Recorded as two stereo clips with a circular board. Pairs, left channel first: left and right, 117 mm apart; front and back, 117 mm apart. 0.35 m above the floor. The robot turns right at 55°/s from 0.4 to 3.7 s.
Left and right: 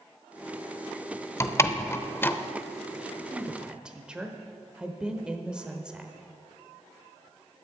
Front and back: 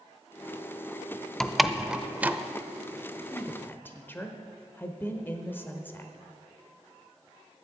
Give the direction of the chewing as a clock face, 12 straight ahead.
No chewing in this recording.